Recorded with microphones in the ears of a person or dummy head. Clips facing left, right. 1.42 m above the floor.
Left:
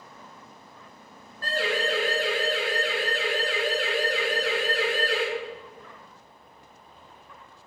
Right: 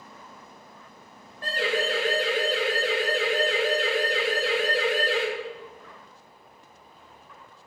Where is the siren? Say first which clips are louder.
Right 1 dB; 15° right (ahead or behind), 10 m; by 5.2 s 20° right (ahead or behind), 7.5 m.